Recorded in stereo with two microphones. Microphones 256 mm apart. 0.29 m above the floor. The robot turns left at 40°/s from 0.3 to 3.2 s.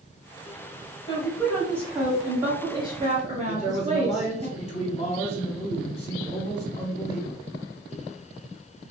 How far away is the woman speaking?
About 1.2 m.